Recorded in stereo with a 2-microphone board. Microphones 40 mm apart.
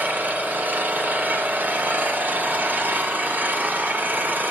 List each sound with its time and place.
0.0 s an engine running: 50° right (ahead or behind), 1.9 m